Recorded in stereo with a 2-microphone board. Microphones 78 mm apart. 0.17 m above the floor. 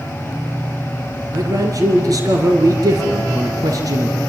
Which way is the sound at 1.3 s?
50° right (ahead or behind).